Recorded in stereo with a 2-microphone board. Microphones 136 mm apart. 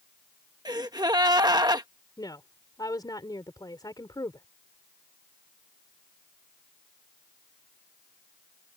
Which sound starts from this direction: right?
A gasp, at 0.7 s.